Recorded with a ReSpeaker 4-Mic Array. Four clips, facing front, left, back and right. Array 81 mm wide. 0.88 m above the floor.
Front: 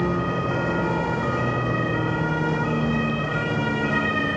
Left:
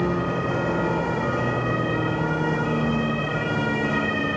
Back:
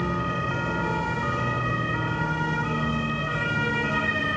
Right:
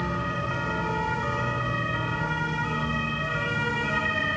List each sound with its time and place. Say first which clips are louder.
0.0 s a vehicle: left 5 dB, front 3 dB; 55° left